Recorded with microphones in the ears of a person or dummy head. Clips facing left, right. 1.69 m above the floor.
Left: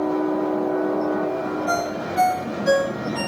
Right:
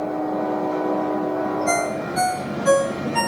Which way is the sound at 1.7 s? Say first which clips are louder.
Right 2 dB; 50° right (ahead or behind).